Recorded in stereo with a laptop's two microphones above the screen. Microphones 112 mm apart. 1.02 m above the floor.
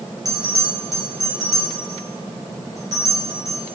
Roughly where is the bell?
Right.